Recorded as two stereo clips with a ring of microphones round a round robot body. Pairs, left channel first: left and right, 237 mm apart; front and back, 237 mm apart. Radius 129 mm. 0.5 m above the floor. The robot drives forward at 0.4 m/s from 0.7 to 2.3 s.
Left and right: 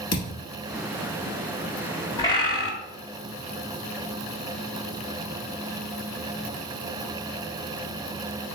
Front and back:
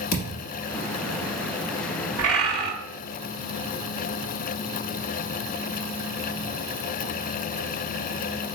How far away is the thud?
About 1.1 m.